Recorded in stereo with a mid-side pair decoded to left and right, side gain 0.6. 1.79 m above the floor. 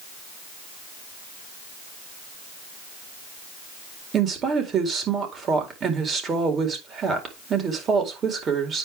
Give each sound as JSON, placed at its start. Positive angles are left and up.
{"t": 4.1, "sound": "a woman speaking", "azimuth_deg": -40, "distance_m": 4.5}